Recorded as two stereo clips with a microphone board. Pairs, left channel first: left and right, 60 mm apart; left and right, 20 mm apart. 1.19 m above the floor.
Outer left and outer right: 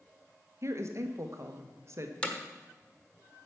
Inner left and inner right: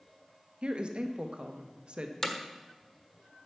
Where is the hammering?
20° left (ahead or behind), 1.3 m.